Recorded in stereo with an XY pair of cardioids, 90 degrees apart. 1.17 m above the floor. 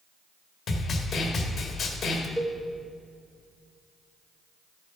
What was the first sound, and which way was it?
A snare drum, 60° left.